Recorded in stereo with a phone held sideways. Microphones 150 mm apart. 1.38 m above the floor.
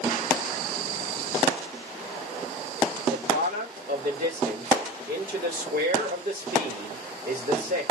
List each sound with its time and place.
3.1 s a man speaking: 75° right (ahead or behind), 3.5 m